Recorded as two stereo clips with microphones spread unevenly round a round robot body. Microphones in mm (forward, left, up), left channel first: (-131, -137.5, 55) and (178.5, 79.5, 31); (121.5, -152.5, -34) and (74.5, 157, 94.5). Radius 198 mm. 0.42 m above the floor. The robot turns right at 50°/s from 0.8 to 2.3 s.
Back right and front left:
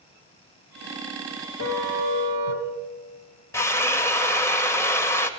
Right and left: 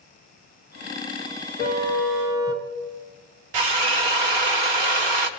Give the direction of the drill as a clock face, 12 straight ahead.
8 o'clock.